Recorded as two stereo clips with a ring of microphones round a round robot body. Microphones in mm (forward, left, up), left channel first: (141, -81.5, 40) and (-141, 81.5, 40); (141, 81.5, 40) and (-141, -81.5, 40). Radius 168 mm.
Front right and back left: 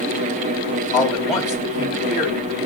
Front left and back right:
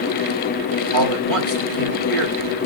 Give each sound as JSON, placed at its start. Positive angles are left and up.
{"t": 0.9, "sound": "a man speaking", "azimuth_deg": -120, "distance_m": 2.0}